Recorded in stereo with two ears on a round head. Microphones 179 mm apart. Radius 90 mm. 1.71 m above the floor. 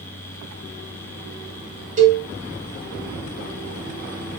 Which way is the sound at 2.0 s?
40° right (ahead or behind).